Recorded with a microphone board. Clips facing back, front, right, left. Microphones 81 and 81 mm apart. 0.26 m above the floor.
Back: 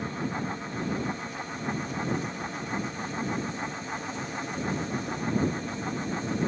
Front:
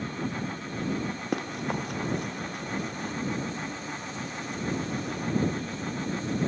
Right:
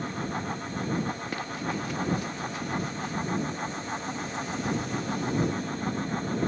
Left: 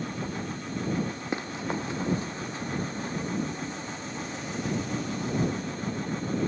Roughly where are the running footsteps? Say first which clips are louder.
Front 3 dB, left 1 dB; ahead.